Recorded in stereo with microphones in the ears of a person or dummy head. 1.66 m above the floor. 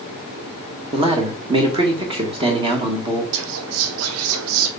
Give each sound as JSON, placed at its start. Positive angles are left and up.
{"t": 0.9, "sound": "a man speaking", "side_deg": -25, "distance_m": 2.0}
{"t": 3.3, "sound": "whispering", "side_deg": -80, "distance_m": 0.7}